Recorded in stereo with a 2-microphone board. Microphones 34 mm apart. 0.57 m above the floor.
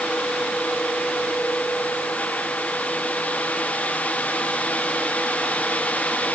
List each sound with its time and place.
Only background noise.